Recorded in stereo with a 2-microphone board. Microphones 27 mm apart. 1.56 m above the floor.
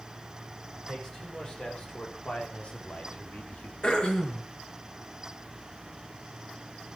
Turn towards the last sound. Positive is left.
turn(degrees=35)  # may be behind; listen again after turning